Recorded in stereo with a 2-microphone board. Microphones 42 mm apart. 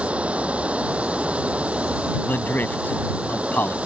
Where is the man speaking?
50° left (ahead or behind).